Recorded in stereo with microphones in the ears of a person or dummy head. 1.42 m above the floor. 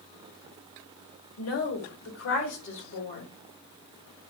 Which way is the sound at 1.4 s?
90° left.